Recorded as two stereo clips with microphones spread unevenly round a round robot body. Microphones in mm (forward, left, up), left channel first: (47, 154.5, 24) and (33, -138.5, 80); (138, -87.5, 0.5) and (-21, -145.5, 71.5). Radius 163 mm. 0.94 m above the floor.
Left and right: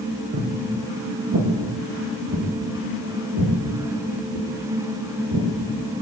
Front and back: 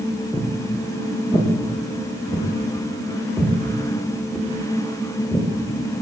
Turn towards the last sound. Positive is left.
turn(degrees=-60)